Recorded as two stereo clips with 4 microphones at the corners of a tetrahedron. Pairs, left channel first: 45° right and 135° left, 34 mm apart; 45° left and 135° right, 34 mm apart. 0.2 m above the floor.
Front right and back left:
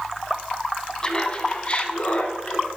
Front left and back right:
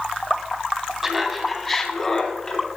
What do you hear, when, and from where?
1.0 s laughter: 65° right, 1.5 m; by 2.7 s 10° right, 2.5 m